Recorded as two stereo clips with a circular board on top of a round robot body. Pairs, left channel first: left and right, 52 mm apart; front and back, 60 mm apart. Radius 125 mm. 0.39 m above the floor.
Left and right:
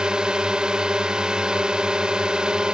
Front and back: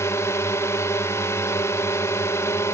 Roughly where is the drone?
Ahead.